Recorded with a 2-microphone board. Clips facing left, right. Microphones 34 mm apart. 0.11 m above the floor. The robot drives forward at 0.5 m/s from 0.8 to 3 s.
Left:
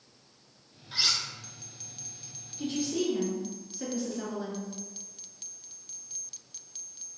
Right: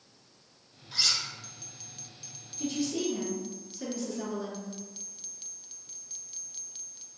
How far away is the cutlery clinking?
About 0.7 m.